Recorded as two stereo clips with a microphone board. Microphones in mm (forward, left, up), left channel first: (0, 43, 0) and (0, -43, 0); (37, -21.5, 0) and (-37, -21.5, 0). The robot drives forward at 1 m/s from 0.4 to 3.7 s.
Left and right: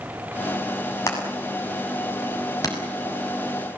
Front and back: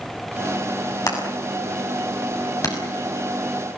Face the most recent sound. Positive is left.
turn(degrees=50)